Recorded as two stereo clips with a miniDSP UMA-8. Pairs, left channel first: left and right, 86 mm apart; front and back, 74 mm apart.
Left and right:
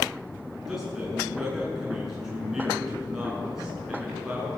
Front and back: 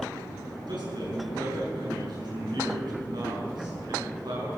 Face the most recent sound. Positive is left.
turn(degrees=-175)